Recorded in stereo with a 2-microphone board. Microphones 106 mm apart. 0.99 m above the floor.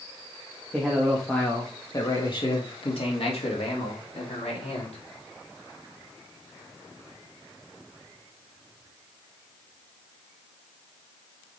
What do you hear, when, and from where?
0.7 s a man speaking: 10° right (ahead or behind), 1.6 m; by 5.0 s 80° left, 3.5 m